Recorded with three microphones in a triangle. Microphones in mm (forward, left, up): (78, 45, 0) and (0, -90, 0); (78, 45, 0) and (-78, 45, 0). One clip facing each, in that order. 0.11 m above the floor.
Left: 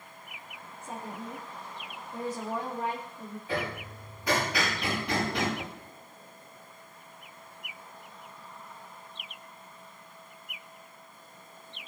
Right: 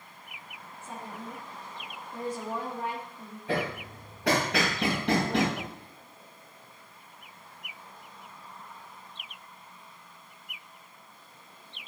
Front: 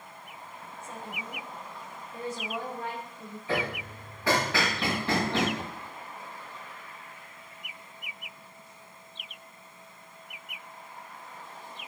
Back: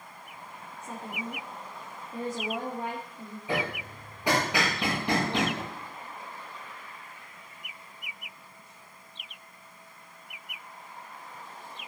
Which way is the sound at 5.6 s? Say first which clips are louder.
Right 1 dB, back 1 dB; 150° right.